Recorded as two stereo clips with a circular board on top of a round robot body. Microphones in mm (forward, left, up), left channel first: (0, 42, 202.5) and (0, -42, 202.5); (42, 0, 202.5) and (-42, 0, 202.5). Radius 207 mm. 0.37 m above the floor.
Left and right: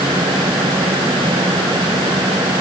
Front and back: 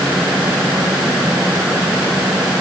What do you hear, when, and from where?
Only background noise.